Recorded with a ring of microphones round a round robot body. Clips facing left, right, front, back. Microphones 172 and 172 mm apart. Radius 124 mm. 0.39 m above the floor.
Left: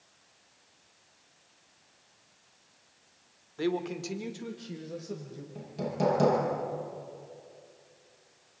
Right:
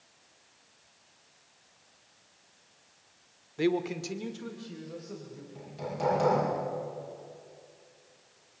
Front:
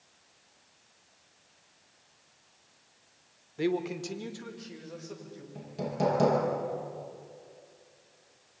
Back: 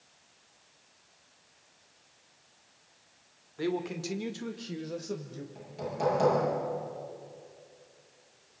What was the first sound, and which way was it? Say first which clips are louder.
A man speaking: right 2 dB, front 2 dB; 40° right.